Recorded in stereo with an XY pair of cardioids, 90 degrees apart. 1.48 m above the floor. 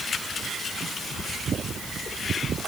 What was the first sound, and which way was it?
Only background noise.